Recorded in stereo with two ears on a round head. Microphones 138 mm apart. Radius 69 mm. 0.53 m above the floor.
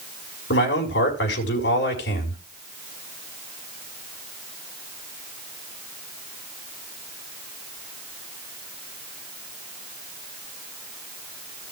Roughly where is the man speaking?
Left.